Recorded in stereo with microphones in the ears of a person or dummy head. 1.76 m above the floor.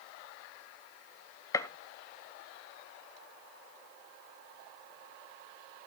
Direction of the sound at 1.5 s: 20° left (ahead or behind).